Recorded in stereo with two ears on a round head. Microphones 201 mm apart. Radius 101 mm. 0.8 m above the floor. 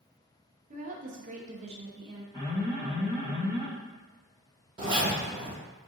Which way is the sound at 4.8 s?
20° right (ahead or behind).